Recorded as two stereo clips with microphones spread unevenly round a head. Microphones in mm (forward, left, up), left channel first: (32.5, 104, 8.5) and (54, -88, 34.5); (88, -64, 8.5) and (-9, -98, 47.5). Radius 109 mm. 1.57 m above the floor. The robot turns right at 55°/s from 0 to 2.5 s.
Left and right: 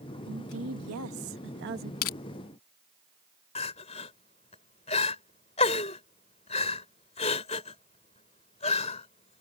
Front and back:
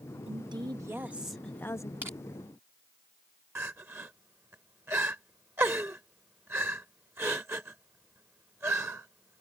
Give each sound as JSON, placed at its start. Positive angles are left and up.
{"t": 0.3, "sound": "a woman speaking", "azimuth_deg": -130}
{"t": 2.0, "sound": "crushing", "azimuth_deg": 125}
{"t": 3.5, "sound": "crying", "azimuth_deg": 160}